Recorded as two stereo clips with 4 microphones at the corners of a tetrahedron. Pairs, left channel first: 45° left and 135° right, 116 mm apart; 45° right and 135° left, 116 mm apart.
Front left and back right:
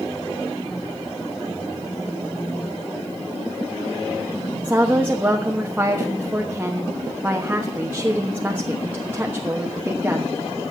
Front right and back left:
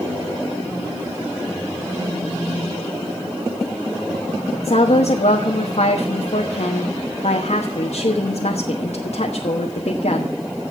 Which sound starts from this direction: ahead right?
A woman speaking, at 4.6 s.